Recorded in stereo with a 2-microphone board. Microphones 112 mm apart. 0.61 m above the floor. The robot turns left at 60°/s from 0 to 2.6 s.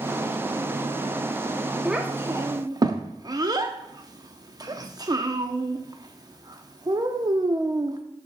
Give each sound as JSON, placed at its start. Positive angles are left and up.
{"t": 1.9, "sound": "a child speaking", "side_deg": -5, "distance_m": 0.6}